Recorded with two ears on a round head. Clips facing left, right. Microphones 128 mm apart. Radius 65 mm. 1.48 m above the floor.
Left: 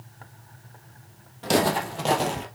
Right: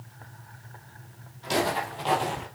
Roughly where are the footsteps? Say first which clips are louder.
Left 4 dB; left.